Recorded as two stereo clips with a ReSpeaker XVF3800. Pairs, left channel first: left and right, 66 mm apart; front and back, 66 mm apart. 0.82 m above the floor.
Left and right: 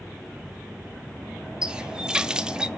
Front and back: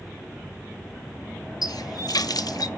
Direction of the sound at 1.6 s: 10° right.